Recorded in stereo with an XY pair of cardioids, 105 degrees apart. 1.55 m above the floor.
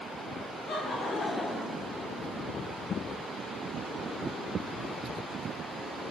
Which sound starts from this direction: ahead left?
Laughter, at 0.7 s.